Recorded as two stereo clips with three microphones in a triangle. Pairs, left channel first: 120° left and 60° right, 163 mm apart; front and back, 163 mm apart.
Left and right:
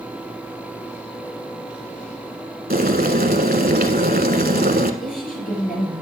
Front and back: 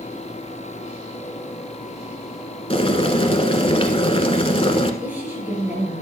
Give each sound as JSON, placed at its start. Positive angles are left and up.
{"t": 2.7, "sound": "boiling", "azimuth_deg": -50, "distance_m": 1.0}
{"t": 5.0, "sound": "a woman speaking", "azimuth_deg": 100, "distance_m": 5.5}